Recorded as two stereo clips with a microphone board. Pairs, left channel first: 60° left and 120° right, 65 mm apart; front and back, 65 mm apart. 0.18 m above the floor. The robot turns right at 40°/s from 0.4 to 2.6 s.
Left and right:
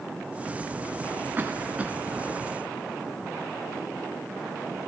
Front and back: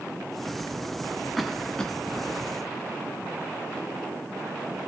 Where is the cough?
90° right, 1.4 m; by 2.0 s 65° right, 1.4 m.